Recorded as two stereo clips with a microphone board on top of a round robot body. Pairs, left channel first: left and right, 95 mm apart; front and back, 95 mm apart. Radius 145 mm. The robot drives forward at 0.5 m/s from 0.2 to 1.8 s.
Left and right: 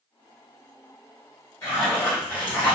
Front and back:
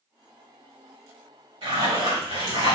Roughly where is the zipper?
Behind left.